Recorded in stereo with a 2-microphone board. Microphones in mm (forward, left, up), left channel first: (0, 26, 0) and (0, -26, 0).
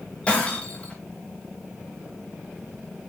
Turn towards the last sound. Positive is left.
turn(degrees=25)  # may be behind; listen again after turning